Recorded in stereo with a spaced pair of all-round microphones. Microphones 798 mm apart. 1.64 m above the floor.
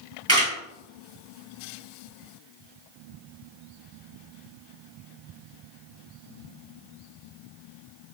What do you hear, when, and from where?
0.3 s a camera shutter: 20° right (ahead or behind), 1.8 m